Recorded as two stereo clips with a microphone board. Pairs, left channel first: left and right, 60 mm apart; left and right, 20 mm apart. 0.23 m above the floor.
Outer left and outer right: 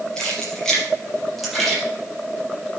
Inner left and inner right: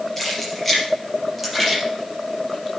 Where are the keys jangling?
10° left (ahead or behind), 4 m; by 1.8 s centre (ahead or behind), 5 m.